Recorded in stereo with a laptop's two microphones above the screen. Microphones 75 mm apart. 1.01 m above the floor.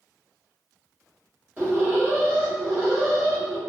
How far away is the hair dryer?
I don't hear a hair dryer.